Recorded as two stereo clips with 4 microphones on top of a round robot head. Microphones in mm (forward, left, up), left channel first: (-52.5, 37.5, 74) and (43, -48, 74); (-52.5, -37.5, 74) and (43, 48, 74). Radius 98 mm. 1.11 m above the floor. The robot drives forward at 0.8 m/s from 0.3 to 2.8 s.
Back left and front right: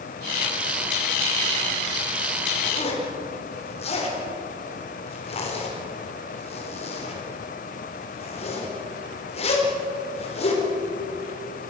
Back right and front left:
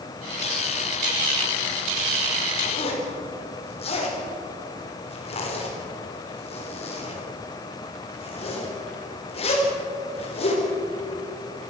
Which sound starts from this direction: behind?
A zipper, at 2.6 s.